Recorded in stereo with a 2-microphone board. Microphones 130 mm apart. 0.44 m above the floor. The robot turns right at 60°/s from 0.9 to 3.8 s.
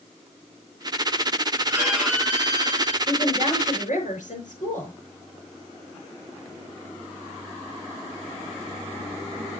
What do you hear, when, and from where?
1.7 s a violin: 25° right, 3 m; by 3.0 s 55° left, 3 m
3.1 s a woman speaking: 30° left, 6 m; by 4.9 s 75° left, 6 m